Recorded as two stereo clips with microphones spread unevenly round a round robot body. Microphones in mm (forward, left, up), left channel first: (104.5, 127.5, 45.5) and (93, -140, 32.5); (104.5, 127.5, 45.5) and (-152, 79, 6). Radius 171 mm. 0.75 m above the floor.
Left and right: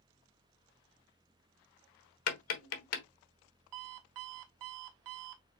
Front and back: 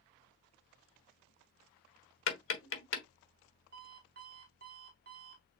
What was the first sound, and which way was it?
Tapping, 50° left.